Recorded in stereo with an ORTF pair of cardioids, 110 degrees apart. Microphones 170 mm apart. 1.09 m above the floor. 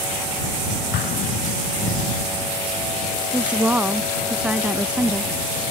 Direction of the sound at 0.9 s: 65° left.